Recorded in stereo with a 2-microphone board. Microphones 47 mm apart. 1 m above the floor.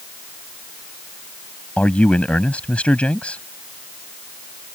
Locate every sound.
1.8 s a man speaking: 25° left (ahead or behind)